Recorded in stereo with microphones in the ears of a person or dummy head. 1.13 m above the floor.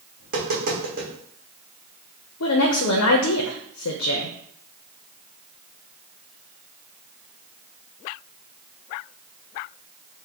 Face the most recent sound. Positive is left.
turn(degrees=75)  # may be behind; listen again after turning